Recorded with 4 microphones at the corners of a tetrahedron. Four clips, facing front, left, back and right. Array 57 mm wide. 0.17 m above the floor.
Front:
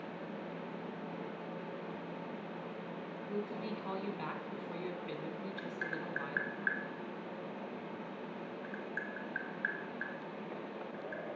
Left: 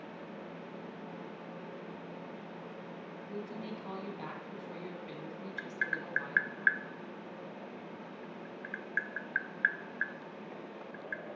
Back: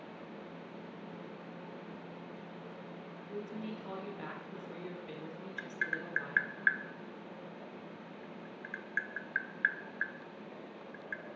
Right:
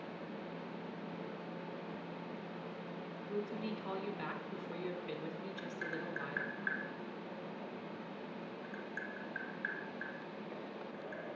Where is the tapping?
120° left, 0.8 m.